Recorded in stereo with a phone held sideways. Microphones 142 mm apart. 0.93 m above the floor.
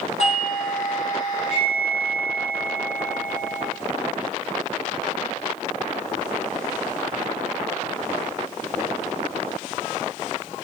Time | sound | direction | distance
0.2 | a doorbell | 50° left (ahead or behind) | 8 m